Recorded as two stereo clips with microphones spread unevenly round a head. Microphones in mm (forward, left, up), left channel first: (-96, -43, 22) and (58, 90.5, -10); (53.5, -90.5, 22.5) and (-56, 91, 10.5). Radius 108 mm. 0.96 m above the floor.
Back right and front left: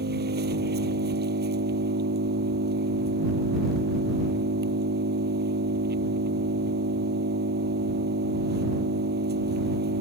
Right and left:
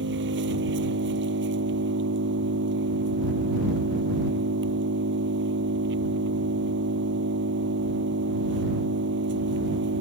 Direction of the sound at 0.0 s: 80° left.